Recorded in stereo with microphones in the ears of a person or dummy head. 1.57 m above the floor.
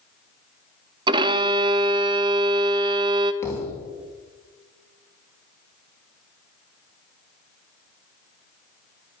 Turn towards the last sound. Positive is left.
turn(degrees=10)  # may be behind; listen again after turning